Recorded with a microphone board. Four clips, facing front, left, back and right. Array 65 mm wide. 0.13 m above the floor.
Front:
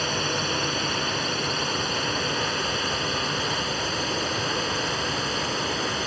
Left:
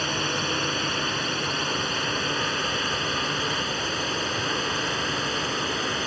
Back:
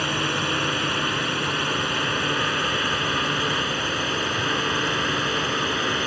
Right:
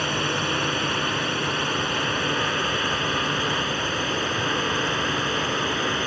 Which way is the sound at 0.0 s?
155° right.